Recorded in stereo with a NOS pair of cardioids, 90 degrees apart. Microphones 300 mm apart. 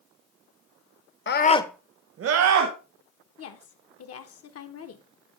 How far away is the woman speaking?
About 1.3 m.